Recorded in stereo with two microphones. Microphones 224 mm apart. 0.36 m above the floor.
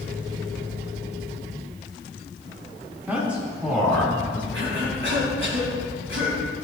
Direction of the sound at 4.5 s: 60° right (ahead or behind).